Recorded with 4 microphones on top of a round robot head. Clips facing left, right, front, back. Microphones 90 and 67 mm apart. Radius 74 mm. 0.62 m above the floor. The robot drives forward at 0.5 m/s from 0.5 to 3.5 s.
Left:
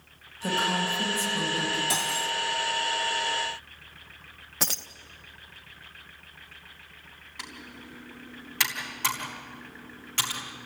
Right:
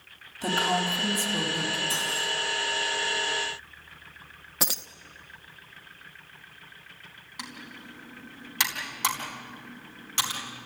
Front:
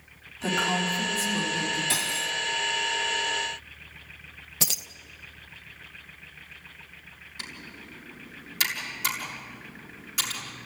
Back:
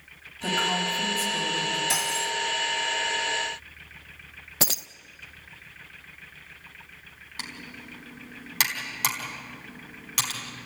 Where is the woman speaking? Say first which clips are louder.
Right 1 dB, even; 85° right, 5 m; by 1.8 s 95° right, 5 m.